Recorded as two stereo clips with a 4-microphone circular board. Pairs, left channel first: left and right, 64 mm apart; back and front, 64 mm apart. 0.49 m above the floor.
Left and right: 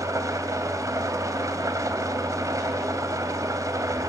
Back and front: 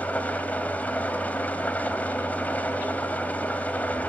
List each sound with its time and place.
0.0 s an engine running: 115° right, 1.6 m